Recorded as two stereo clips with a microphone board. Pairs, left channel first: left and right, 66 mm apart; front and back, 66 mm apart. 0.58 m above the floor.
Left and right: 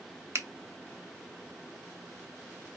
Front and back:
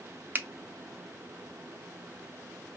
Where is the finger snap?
125° right, 0.6 m.